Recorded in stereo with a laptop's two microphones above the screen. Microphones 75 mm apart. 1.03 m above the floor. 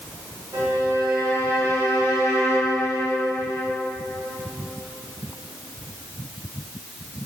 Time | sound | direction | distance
0.5 | a violin | 50° right (ahead or behind) | 1.1 m